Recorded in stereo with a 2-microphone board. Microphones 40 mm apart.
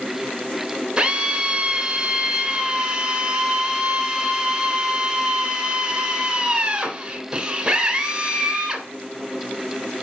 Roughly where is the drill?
Centre.